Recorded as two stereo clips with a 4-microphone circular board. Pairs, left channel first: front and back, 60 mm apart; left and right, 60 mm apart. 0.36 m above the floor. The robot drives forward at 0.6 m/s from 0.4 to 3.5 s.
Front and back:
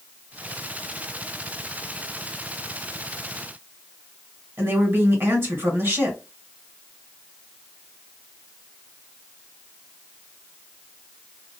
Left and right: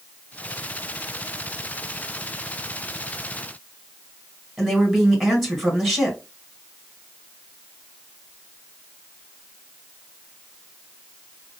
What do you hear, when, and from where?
4.6 s a woman speaking: 175° right, 1.9 m